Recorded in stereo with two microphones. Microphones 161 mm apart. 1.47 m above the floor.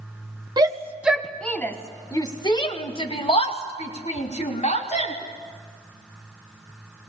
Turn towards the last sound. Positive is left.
turn(degrees=45)  # may be behind; listen again after turning